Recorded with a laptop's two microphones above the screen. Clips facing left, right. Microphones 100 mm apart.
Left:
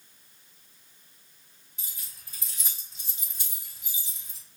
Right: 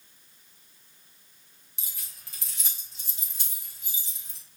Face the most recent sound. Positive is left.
turn(degrees=-80)